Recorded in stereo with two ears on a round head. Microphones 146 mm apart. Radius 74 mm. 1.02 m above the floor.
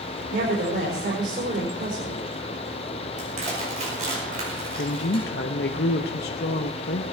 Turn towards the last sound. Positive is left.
turn(degrees=65)  # may be behind; listen again after turning